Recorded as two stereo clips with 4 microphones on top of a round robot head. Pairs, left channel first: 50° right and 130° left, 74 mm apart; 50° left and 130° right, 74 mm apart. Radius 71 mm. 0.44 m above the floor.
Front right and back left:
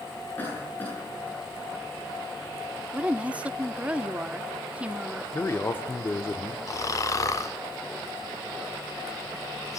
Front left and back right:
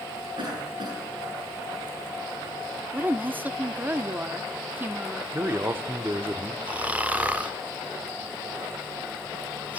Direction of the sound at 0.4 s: 115° right.